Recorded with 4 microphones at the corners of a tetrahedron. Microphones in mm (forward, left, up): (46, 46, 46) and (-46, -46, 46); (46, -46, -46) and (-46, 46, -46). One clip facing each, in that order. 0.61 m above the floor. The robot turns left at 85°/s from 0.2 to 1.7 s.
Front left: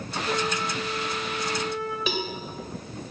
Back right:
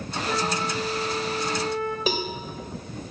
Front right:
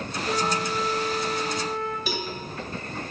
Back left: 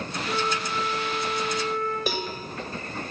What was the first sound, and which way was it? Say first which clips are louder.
A flute: back right 1 dB, front right 2 dB; 55° right.